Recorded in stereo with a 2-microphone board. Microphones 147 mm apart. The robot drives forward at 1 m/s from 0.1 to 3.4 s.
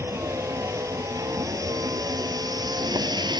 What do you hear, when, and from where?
0.0 s a vehicle: 20° right (ahead or behind); by 3.4 s 30° right (ahead or behind)